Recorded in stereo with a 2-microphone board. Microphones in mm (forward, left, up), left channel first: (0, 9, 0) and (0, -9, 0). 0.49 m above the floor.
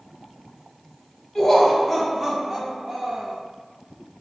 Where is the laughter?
15° left (ahead or behind), 0.8 m; by 3.4 s 50° right (ahead or behind), 1.1 m.